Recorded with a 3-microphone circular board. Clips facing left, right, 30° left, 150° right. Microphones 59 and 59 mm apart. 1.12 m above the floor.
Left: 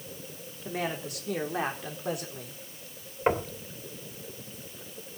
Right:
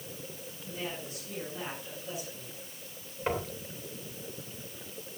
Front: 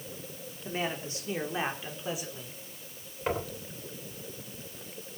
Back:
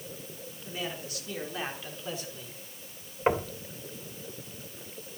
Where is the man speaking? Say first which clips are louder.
Left 6 dB, front 4 dB; 85° left, 3.5 m; by 2.6 s 115° left, 4.5 m.